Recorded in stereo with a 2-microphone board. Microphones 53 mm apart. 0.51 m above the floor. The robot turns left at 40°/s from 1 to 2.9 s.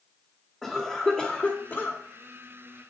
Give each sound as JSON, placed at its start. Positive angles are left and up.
{"t": 0.6, "sound": "a cough", "azimuth_deg": -170, "distance_m": 1.5}